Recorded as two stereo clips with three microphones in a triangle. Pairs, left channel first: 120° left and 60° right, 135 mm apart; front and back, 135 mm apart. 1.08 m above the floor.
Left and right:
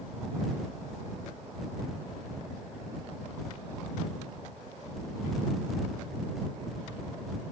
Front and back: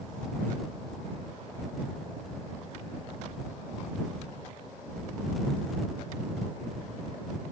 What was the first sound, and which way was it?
Only background noise.